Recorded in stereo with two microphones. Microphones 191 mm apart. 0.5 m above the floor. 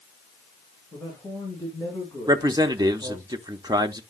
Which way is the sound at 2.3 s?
20° right (ahead or behind).